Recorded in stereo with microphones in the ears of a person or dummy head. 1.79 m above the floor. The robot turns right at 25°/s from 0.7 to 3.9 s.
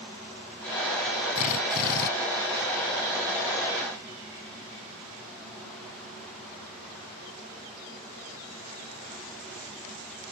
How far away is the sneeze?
No sneeze in this recording.